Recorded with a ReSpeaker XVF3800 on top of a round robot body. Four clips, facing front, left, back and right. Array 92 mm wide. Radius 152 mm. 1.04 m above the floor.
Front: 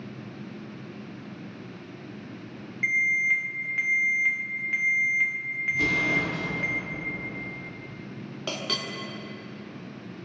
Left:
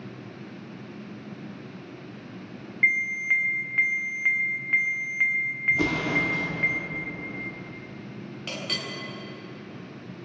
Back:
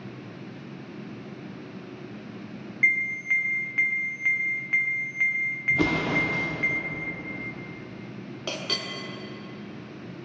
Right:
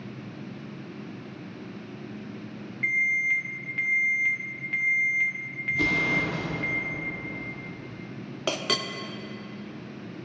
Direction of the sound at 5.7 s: 155° left.